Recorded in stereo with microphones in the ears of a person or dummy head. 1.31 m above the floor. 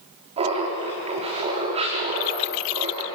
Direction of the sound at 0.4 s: 35° right (ahead or behind).